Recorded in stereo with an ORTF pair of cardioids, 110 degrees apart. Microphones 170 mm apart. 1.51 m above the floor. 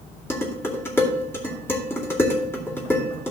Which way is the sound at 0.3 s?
15° left.